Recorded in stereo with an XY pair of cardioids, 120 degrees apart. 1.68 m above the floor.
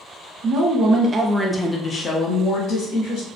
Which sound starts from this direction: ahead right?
A woman speaking, at 0.4 s.